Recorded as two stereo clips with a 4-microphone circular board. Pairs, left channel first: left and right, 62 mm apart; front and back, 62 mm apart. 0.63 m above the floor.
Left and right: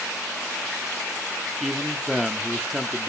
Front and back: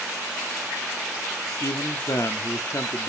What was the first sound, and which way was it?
A man speaking, straight ahead.